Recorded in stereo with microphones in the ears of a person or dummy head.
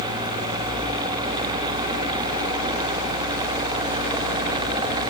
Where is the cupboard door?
I don't hear a cupboard door.